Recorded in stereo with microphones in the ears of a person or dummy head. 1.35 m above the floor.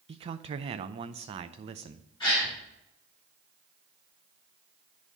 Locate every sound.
0.1 s a man speaking: 35° right (ahead or behind), 0.6 m
2.2 s a gasp: 25° left (ahead or behind), 3.5 m